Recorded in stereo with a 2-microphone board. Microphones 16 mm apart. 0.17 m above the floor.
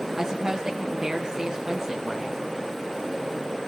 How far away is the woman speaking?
About 1.8 m.